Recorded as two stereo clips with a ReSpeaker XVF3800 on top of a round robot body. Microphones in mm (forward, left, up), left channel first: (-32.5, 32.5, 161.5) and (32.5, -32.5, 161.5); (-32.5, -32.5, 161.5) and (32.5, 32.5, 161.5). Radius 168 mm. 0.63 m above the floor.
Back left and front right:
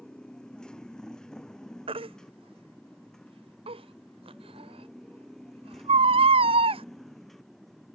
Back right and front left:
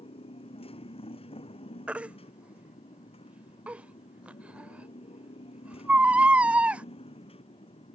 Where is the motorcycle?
145° right; by 8.0 s 140° right.